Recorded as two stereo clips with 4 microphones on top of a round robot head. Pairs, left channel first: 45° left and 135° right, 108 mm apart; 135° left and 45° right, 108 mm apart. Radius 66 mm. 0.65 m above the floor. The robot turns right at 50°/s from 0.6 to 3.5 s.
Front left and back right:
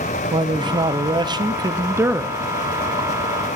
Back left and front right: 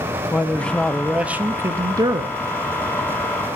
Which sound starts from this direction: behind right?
A man speaking, at 0.3 s.